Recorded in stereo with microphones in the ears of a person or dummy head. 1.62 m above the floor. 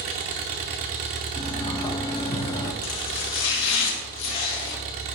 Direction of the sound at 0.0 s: 45° right (ahead or behind).